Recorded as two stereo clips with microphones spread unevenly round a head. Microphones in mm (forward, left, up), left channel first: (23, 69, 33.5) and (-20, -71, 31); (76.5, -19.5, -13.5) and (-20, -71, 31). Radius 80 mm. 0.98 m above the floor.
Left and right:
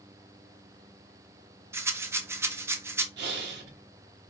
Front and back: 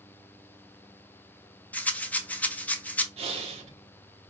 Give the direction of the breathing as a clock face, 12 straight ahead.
4 o'clock.